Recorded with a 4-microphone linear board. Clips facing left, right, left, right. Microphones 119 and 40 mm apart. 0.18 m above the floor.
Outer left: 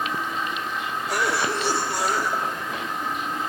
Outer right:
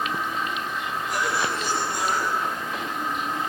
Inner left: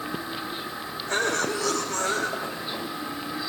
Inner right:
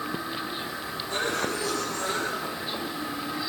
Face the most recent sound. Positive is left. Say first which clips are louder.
# outer left 2 dB, inner left 3 dB
turn(degrees=70)  # may be behind; listen again after turning